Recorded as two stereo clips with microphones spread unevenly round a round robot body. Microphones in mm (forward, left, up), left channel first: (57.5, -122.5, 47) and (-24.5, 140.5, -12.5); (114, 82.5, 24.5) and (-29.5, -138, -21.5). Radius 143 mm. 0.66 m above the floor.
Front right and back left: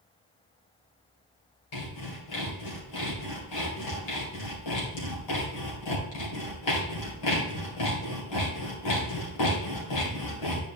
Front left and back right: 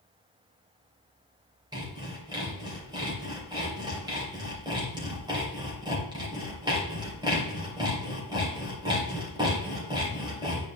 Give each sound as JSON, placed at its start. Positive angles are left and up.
{"t": 1.7, "sound": "sawing", "azimuth_deg": -50, "distance_m": 3.0}